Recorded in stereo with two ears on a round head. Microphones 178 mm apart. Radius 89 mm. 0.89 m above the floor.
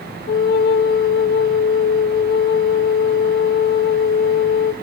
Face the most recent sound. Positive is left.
turn(degrees=50)  # may be behind; listen again after turning